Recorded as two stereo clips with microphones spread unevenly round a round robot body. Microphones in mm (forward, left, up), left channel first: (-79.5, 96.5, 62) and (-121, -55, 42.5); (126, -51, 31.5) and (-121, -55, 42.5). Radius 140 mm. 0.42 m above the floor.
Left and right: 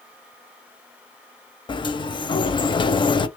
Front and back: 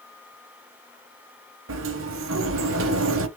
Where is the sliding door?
135° left, 0.6 m.